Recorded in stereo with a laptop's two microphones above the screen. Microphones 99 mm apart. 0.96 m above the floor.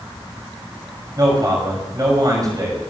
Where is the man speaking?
40° right (ahead or behind), 6 m.